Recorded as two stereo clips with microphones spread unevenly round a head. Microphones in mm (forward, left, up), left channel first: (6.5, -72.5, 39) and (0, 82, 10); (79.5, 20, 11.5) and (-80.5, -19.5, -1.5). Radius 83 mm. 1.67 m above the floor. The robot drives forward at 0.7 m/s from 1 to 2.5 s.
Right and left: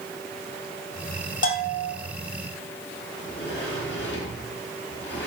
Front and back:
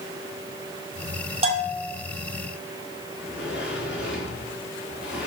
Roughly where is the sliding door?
Right.